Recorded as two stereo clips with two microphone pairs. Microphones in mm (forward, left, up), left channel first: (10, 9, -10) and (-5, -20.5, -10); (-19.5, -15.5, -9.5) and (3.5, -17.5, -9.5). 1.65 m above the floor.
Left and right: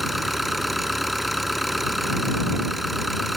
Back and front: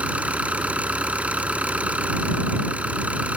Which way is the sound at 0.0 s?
25° right.